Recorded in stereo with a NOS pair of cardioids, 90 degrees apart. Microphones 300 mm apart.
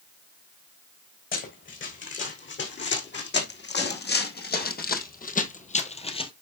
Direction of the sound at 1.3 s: 40° left.